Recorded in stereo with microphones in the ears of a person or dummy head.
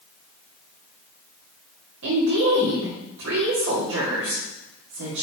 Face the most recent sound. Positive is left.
turn(degrees=-70)  # may be behind; listen again after turning